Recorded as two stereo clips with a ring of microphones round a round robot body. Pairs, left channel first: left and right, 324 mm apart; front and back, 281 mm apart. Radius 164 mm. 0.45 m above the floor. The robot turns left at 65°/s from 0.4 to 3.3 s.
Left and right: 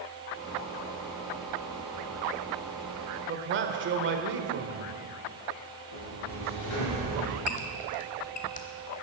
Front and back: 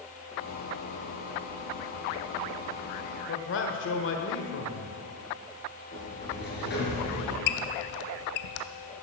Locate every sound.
3.3 s a man speaking: 40° right, 1.3 m
5.9 s a sliding door: 55° left, 4.5 m
7.5 s a squeak: 20° left, 0.8 m